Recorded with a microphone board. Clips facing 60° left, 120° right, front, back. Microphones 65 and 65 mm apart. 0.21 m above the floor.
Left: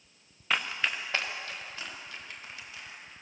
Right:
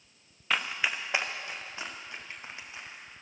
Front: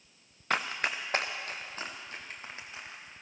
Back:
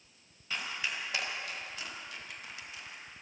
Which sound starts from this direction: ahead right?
Running footsteps, at 0.5 s.